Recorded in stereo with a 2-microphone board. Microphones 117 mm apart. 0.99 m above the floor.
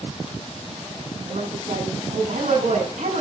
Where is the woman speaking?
85° right, 7.5 m.